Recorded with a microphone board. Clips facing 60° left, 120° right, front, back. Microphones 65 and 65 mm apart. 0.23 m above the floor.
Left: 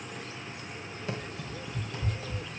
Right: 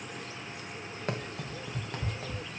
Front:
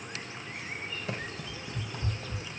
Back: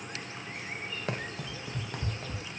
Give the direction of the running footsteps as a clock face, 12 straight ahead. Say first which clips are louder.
Right 2 dB, back 4 dB; 5 o'clock.